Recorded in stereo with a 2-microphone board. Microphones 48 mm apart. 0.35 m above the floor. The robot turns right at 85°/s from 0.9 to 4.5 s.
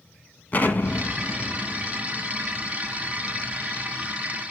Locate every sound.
0.5 s an explosion: 35° left (ahead or behind), 1.4 m; by 4.2 s 60° left (ahead or behind), 1.4 m